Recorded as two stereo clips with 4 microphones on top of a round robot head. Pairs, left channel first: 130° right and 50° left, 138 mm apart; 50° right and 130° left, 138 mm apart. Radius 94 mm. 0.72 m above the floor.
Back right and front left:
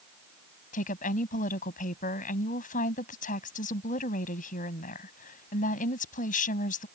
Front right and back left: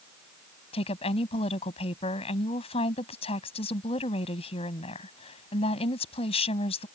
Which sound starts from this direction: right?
A woman speaking, at 0.7 s.